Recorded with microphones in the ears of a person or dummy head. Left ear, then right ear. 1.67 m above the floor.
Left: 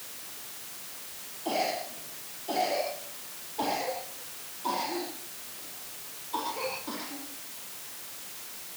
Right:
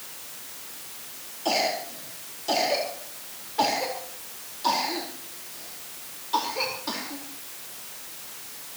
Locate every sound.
1.4 s a cough: 45° right (ahead or behind), 4 m